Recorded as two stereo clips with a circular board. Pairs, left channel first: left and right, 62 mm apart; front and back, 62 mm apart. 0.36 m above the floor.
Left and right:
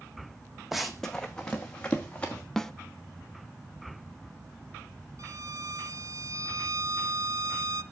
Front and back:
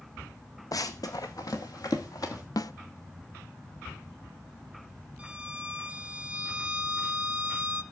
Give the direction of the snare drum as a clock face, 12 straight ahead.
12 o'clock.